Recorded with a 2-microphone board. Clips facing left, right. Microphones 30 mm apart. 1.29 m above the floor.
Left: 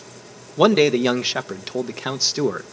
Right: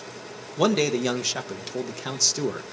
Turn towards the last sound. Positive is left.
turn(degrees=25)  # may be behind; listen again after turning